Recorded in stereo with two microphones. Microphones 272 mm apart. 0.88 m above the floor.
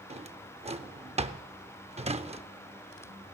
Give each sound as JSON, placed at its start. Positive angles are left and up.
{"t": 0.1, "sound": "a drawer", "side_deg": -25, "distance_m": 0.5}